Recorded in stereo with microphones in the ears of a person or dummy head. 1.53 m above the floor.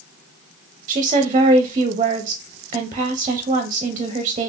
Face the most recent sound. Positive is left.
turn(degrees=-25)  # may be behind; listen again after turning